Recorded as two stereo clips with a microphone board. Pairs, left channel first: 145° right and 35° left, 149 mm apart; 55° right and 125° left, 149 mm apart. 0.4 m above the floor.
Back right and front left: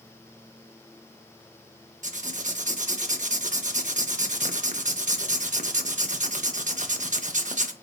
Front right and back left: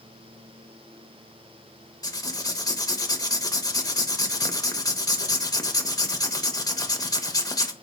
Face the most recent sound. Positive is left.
turn(degrees=10)